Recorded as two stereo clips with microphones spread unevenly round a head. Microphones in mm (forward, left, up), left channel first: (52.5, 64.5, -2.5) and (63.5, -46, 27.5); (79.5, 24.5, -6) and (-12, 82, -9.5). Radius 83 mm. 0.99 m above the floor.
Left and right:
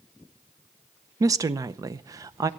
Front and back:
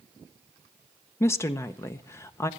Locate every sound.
1.2 s a woman speaking: 35° right, 0.7 m